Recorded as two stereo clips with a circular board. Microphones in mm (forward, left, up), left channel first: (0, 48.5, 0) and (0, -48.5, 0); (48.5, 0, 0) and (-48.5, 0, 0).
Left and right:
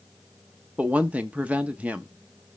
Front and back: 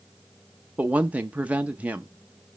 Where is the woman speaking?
135° right, 0.5 m.